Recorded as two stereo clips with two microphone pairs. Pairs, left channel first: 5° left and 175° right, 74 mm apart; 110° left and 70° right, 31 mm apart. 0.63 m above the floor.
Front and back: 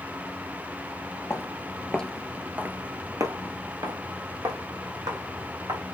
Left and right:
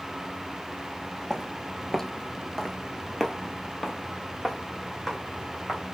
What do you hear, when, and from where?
1.3 s footsteps: 35° left, 0.8 m; by 5.8 s 165° right, 2 m